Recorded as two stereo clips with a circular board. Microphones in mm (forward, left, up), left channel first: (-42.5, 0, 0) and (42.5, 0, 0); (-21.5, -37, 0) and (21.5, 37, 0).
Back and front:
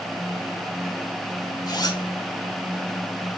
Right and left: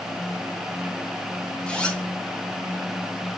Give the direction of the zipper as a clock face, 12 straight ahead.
7 o'clock.